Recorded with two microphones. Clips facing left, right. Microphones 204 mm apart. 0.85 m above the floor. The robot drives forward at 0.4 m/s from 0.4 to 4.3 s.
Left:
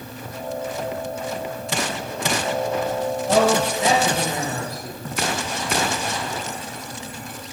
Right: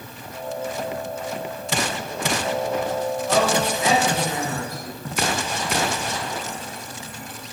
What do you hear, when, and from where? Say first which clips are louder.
3.3 s a man speaking: left 4 dB; 35° left (ahead or behind), 4.5 m